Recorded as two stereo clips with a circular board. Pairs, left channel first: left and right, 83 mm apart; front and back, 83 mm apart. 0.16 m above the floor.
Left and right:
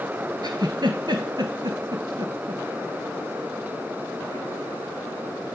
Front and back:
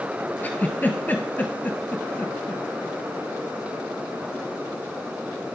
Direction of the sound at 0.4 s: 70° right.